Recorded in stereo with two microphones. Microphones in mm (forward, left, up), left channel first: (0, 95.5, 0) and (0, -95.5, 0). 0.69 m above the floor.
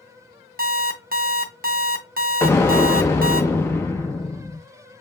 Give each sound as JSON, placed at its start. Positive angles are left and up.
{"t": 0.6, "sound": "an alarm clock", "side_deg": -50, "distance_m": 0.6}
{"t": 2.4, "sound": "an explosion", "side_deg": 15, "distance_m": 0.6}